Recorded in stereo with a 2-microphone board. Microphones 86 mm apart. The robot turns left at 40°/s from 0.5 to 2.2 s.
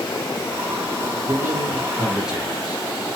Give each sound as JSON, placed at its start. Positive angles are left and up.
{"t": 1.3, "sound": "a man speaking", "azimuth_deg": -130, "distance_m": 1.5}